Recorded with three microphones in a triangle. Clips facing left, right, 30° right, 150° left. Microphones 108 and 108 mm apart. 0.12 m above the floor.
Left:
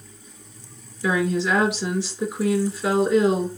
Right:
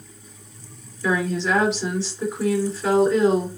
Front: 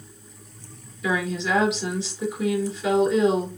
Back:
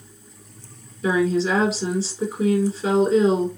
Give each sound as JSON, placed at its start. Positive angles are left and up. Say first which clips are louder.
{"t": 1.0, "sound": "a woman speaking", "louder": "left 1 dB, back 6 dB", "azimuth_deg": 160, "distance_m": 1.9}